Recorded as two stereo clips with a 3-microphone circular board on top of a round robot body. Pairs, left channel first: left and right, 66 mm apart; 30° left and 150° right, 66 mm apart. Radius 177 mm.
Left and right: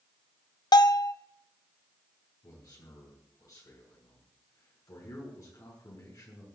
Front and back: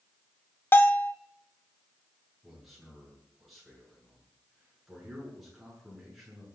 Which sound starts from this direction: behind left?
A man speaking, at 2.4 s.